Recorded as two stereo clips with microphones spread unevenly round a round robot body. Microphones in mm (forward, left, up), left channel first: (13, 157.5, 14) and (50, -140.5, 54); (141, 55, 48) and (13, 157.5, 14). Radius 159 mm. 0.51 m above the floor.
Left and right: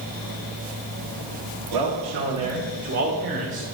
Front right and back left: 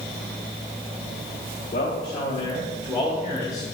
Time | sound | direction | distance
1.7 | a man speaking | 90° right | 1.7 m